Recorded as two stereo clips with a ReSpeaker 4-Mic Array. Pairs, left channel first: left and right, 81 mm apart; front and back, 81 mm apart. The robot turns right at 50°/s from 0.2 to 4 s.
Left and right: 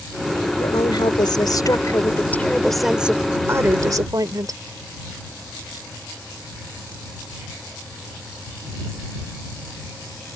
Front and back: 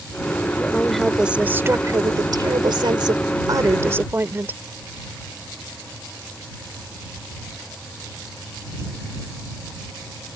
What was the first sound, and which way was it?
A woman speaking, 70° left.